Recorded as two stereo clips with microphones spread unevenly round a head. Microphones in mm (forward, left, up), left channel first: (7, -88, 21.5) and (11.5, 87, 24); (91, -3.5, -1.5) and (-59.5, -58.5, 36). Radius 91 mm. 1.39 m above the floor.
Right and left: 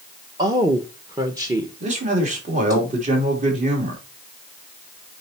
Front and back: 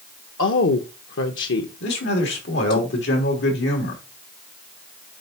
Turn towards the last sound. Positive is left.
turn(degrees=40)